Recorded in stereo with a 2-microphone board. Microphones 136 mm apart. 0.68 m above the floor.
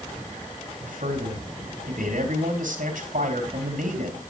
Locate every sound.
0.8 s a man speaking: 80° right, 4.5 m